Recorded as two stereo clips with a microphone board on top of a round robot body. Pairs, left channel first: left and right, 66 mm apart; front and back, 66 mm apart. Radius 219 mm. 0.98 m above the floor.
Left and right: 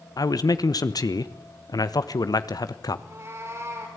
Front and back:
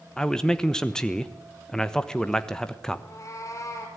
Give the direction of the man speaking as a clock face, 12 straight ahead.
9 o'clock.